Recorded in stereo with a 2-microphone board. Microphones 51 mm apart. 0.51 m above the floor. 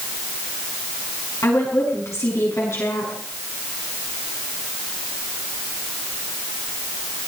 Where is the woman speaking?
70° left (ahead or behind), 5.5 m.